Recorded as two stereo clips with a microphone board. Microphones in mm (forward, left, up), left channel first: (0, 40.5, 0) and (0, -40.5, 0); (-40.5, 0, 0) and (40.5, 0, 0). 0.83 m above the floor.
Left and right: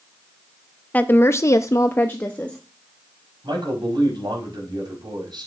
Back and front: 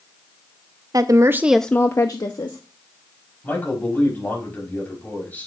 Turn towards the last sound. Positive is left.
turn(degrees=-115)